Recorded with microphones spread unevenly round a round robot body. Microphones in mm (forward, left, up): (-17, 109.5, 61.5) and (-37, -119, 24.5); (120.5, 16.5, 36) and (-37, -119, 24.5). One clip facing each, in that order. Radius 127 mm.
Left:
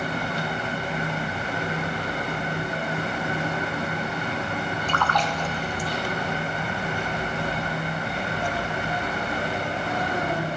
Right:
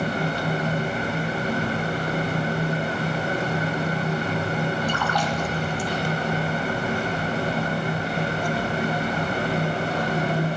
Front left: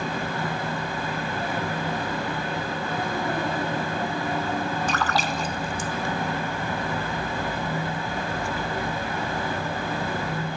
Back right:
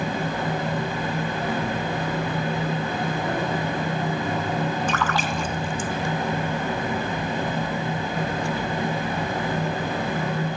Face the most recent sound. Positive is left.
turn(degrees=-10)